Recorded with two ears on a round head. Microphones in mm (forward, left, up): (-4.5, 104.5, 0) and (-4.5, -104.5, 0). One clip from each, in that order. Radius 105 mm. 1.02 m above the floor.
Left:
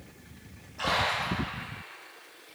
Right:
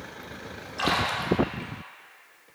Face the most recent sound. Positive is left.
turn(degrees=-45)  # may be behind; listen again after turning